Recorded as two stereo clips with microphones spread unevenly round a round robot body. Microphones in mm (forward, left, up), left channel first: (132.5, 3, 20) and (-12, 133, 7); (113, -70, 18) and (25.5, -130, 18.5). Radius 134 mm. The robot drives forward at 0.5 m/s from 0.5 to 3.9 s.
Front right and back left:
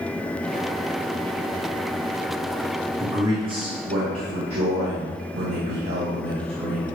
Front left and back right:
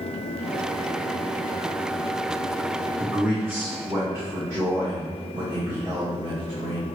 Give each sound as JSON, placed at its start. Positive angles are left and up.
{"t": 3.0, "sound": "a man speaking", "azimuth_deg": 135, "distance_m": 0.7}